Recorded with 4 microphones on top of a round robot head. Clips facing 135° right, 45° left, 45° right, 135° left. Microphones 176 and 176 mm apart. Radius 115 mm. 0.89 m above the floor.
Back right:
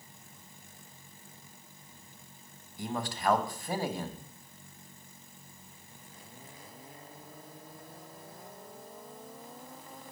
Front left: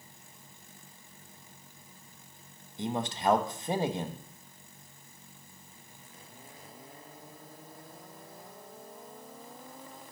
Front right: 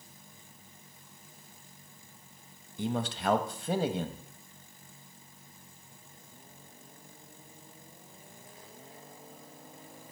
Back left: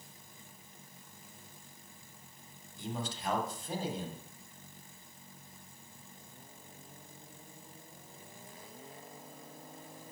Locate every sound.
2.8 s a man speaking: 25° right, 1.2 m